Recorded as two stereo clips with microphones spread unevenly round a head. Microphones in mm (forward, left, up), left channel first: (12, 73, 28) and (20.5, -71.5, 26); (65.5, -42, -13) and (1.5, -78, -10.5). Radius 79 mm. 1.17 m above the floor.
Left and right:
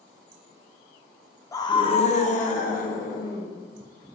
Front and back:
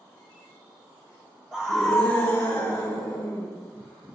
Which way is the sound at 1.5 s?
135° left.